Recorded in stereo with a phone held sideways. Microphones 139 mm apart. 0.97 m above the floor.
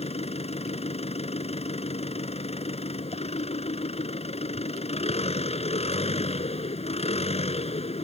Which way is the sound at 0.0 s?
45° left (ahead or behind).